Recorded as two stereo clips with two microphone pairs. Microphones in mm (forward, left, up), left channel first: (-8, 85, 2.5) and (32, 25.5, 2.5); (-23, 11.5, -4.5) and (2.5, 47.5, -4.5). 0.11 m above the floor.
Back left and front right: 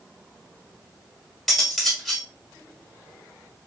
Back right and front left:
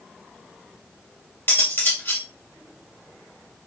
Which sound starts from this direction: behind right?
Cutlery clinking, at 1.5 s.